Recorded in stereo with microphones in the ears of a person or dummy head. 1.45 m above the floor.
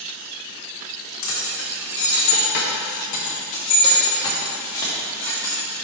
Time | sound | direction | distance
1.2 | keys jangling | 65° left (ahead or behind) | 1.4 m